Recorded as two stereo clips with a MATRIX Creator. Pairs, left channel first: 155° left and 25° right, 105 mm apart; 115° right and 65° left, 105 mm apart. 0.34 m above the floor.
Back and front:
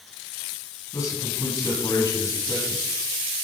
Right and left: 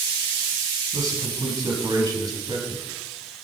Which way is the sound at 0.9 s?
110° left.